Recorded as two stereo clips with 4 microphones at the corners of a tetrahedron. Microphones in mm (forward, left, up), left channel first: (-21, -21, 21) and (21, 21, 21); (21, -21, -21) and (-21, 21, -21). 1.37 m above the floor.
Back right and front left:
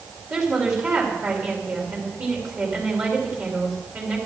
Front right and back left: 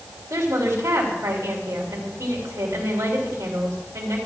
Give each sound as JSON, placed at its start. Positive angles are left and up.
{"t": 0.3, "sound": "a woman speaking", "azimuth_deg": 95, "distance_m": 3.0}